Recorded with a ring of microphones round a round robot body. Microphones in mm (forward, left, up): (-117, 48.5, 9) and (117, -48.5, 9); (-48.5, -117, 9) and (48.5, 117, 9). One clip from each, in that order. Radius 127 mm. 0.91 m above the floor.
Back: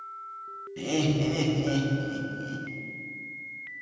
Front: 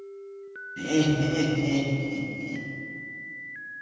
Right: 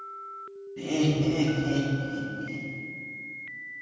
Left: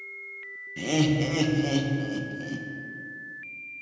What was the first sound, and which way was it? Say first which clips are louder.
Laughter: front 3 dB, left 2 dB; 80° left.